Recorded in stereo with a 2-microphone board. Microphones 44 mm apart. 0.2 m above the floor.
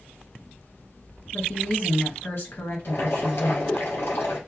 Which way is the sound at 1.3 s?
55° left (ahead or behind).